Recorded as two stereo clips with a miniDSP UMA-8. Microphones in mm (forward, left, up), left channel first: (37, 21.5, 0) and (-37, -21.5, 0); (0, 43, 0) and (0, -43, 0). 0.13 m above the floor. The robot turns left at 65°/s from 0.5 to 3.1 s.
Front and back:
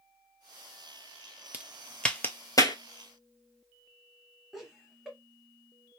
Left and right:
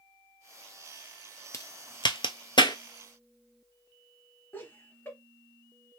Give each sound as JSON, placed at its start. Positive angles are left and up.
{"t": 1.5, "sound": "a crack", "azimuth_deg": 140, "distance_m": 0.6}
{"t": 4.5, "sound": "laughter", "azimuth_deg": 120, "distance_m": 1.3}